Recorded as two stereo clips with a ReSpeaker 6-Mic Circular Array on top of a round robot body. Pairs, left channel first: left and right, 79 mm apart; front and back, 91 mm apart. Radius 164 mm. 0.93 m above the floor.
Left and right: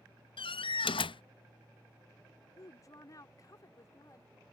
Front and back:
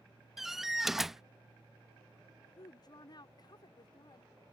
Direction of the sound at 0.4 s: 95° left.